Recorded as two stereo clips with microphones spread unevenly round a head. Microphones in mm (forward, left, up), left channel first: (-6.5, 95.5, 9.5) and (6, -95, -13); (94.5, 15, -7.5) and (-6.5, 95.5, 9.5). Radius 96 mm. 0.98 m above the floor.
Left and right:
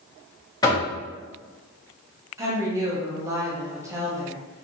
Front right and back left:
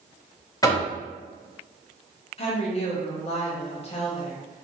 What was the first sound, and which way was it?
Knocking, 20° left.